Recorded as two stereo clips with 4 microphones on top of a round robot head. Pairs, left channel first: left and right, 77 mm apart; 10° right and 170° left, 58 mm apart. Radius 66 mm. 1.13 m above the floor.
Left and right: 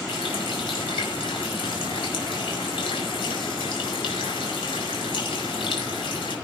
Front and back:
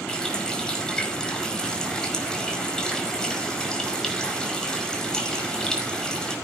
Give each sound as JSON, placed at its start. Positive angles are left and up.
{"t": 0.1, "sound": "a running tap", "azimuth_deg": 65, "distance_m": 5.0}